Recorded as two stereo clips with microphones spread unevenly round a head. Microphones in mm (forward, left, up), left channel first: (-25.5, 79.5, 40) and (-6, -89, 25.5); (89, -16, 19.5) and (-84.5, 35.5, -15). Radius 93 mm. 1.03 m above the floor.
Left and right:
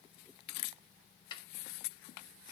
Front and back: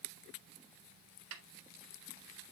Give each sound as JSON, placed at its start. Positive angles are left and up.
{"t": 1.3, "sound": "a snare drum", "azimuth_deg": 160, "distance_m": 1.6}